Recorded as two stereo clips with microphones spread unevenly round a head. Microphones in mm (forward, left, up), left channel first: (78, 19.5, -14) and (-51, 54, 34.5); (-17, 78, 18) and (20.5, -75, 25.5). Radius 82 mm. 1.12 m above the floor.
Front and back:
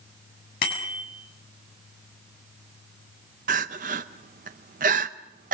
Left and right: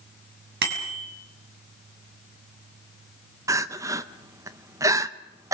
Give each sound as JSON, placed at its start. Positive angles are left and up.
{"t": 0.6, "sound": "a bicycle bell", "azimuth_deg": -50, "distance_m": 6.5}
{"t": 3.5, "sound": "crying", "azimuth_deg": -150, "distance_m": 0.7}